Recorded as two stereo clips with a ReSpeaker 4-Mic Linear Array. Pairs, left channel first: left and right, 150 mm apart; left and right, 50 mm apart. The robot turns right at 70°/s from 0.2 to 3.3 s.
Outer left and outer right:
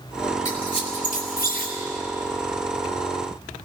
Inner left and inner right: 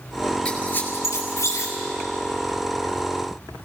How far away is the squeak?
About 4.5 m.